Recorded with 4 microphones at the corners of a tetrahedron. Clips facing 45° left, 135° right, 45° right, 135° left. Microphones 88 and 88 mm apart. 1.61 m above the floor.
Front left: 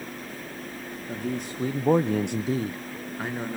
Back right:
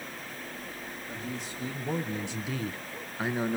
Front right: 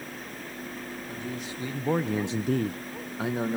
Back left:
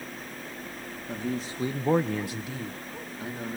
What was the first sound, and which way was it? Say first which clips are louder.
A man speaking: front left 8 dB, back left 7 dB; 85° left.